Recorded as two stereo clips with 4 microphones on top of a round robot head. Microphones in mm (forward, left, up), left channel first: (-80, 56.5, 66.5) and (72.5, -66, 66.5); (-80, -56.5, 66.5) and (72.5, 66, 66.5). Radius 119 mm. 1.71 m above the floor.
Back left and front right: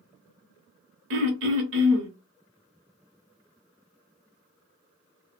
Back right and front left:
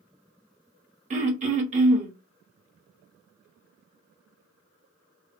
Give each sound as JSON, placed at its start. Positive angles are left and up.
{"t": 1.1, "sound": "throat clearing", "azimuth_deg": -15, "distance_m": 0.7}